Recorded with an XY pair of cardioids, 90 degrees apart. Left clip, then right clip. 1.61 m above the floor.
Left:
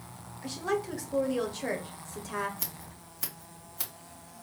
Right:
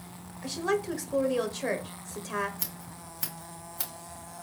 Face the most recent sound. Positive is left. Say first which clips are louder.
# right 1 dB
turn(degrees=-10)